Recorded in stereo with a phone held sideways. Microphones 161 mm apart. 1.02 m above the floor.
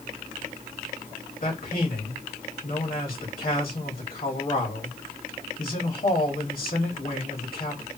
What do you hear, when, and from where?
1.4 s a man speaking: 65° left (ahead or behind), 1.9 m